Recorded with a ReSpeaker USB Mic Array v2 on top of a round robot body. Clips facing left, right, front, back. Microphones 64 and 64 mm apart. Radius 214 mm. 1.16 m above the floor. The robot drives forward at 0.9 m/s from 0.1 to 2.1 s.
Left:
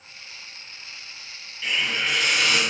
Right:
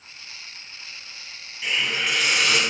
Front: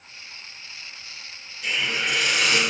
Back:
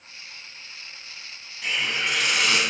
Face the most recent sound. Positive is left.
turn(degrees=-170)